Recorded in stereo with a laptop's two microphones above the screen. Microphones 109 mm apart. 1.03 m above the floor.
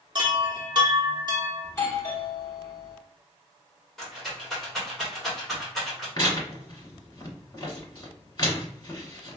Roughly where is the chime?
Right.